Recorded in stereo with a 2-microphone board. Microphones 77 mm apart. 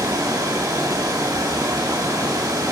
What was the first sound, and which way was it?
Running water, 55° right (ahead or behind).